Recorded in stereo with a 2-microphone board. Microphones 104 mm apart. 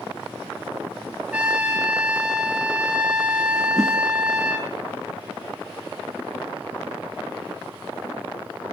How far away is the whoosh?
About 1.1 m.